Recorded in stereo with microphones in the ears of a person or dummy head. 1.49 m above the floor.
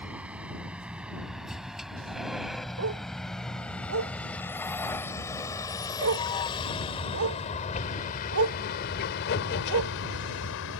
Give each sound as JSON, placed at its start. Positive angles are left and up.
{"t": 0.0, "sound": "a vehicle", "side_deg": -10}
{"t": 2.8, "sound": "a dog barking", "side_deg": -80}